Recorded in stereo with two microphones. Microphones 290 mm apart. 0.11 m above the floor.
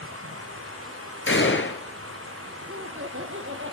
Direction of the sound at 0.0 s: 50° right (ahead or behind).